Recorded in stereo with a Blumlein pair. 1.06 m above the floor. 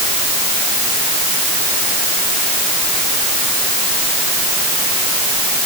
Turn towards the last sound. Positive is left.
No sound to turn to.